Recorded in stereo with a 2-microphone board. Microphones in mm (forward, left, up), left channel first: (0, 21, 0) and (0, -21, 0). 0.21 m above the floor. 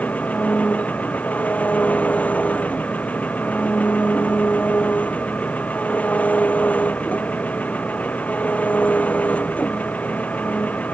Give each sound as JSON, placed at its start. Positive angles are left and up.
{"t": 0.0, "sound": "an engine running", "side_deg": 35}